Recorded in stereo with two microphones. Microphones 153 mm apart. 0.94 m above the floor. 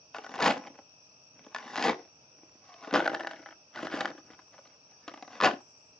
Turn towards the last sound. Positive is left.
turn(degrees=5)  # may be behind; listen again after turning